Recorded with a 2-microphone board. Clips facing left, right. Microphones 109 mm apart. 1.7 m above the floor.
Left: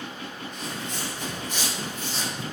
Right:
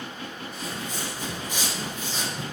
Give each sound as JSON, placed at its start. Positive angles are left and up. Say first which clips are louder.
{"t": 0.5, "sound": "footsteps", "louder": "right 1 dB", "side_deg": -5, "distance_m": 2.0}